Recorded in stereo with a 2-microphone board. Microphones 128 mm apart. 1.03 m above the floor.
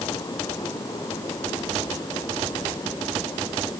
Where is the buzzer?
No buzzer in this recording.